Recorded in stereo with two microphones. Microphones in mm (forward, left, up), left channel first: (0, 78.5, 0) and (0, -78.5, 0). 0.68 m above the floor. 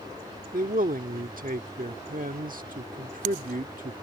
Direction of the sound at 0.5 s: 65° right (ahead or behind).